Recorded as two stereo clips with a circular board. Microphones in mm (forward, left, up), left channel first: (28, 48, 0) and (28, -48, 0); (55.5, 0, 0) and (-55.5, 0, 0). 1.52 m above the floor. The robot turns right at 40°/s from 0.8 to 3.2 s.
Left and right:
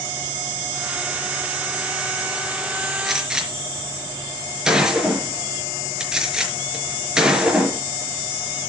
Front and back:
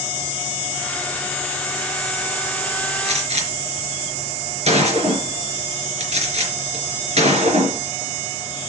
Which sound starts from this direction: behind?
A gunshot, at 3.0 s.